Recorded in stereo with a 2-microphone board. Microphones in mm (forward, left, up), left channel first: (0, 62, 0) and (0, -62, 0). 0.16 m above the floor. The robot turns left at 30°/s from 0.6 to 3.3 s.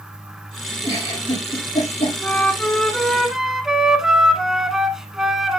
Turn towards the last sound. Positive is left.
turn(degrees=-5)